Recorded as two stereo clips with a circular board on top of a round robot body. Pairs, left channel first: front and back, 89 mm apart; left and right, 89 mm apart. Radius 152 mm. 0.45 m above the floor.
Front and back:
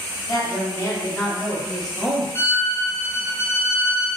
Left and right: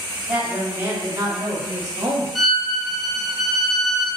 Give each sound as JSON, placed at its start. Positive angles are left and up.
{"t": 0.3, "sound": "a woman speaking", "azimuth_deg": -20, "distance_m": 1.1}
{"t": 2.4, "sound": "a violin", "azimuth_deg": 5, "distance_m": 0.8}